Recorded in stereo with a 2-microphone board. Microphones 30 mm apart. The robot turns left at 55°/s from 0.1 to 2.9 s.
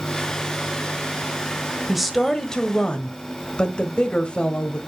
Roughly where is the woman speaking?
Behind.